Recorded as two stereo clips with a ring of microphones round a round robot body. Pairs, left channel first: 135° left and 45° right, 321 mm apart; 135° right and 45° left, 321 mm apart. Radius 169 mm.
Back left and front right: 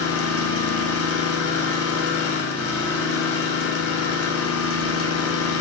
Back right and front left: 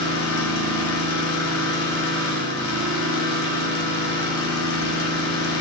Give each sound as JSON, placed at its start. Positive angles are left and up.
{"t": 0.0, "sound": "an engine running", "azimuth_deg": -175, "distance_m": 1.5}